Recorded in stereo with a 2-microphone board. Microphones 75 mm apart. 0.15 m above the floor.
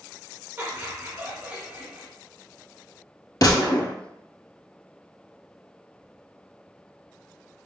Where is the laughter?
35° right (ahead or behind), 1.5 m; by 2.1 s 15° right (ahead or behind), 1.3 m.